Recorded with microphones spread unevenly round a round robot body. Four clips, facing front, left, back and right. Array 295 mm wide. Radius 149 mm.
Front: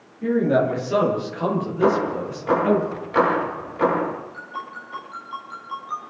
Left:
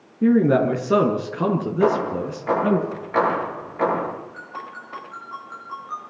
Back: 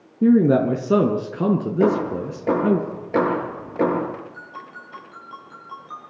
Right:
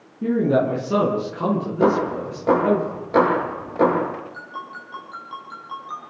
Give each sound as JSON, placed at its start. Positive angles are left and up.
{"t": 0.2, "sound": "a man speaking", "azimuth_deg": 165, "distance_m": 4.0}
{"t": 1.8, "sound": "hammering", "azimuth_deg": -150, "distance_m": 7.5}
{"t": 4.3, "sound": "a ringtone", "azimuth_deg": -150, "distance_m": 8.0}